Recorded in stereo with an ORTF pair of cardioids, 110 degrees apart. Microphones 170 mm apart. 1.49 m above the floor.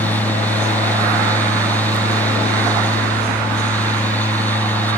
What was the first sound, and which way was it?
A fan, 10° left.